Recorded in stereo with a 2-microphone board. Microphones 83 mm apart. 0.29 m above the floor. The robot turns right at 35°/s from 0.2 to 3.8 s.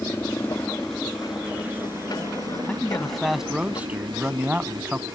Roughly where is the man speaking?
Behind.